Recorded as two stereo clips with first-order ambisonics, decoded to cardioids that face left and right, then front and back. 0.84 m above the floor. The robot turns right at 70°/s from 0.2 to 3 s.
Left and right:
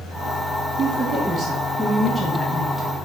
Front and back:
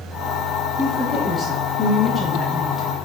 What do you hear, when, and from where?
0.8 s a woman speaking: 95° right, 0.9 m; by 3.0 s 55° left, 0.9 m